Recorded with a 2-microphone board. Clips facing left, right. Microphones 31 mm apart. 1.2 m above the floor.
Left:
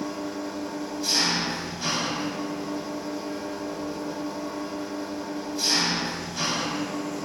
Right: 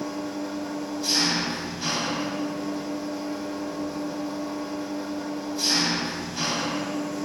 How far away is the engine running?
About 0.9 m.